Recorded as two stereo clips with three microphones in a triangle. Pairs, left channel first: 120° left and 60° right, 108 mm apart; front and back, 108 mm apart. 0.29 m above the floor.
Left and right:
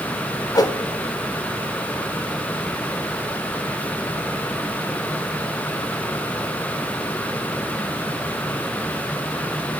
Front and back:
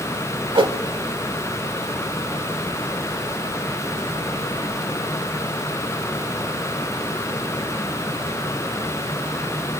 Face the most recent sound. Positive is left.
turn(degrees=160)